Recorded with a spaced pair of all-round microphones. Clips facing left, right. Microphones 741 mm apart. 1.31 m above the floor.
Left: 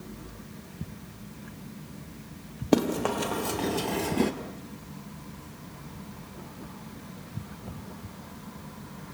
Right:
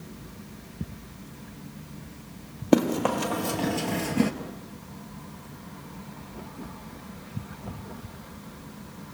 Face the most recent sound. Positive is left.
turn(degrees=-15)  # may be behind; listen again after turning